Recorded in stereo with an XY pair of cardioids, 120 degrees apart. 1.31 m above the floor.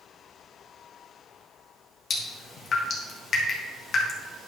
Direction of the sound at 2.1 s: 45° left.